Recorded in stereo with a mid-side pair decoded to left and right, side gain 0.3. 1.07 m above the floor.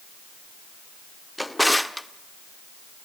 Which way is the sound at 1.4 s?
10° left.